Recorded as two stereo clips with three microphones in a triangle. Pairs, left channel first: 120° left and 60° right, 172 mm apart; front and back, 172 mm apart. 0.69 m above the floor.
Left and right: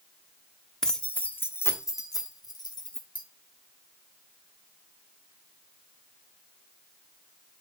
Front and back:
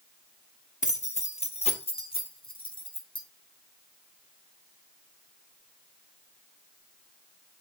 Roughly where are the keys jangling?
Ahead left.